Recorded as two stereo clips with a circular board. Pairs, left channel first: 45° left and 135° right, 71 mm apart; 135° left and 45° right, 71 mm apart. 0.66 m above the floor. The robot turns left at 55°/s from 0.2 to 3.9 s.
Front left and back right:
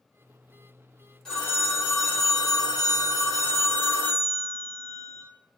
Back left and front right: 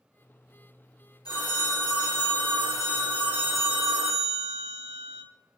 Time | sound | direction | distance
1.2 | a phone ringing | 130° left | 1.3 m